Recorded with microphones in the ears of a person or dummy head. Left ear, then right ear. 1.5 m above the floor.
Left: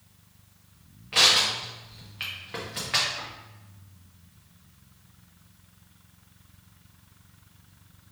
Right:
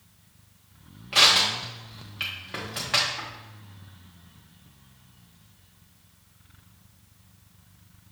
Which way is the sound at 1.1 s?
5° right (ahead or behind).